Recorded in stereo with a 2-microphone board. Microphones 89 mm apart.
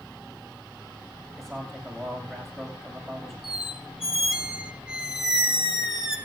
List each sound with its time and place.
1.4 s a man speaking: centre (ahead or behind), 8.5 m
3.4 s a squeak: 5° right (ahead or behind), 2.5 m